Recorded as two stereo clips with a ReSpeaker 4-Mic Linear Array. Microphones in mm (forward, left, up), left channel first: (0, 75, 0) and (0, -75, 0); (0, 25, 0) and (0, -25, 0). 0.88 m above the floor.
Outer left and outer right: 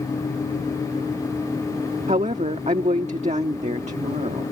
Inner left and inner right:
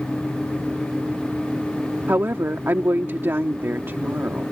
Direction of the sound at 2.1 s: 50° right (ahead or behind).